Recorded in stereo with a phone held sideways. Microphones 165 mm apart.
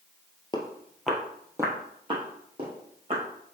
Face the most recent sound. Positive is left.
turn(degrees=-35)  # may be behind; listen again after turning